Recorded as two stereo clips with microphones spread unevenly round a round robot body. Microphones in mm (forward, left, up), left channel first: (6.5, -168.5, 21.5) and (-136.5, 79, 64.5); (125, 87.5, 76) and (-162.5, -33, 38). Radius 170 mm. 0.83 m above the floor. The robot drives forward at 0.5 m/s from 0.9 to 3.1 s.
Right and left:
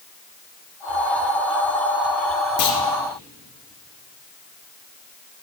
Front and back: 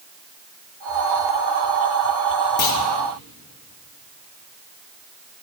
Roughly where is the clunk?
Ahead right.